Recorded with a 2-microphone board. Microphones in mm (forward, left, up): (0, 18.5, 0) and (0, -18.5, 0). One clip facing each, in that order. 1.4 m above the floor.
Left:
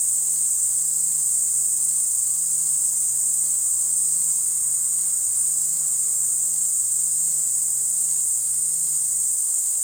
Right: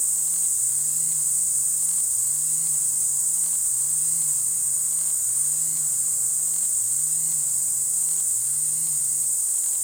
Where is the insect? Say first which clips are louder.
Left 2 dB; 20° right (ahead or behind), 0.8 m.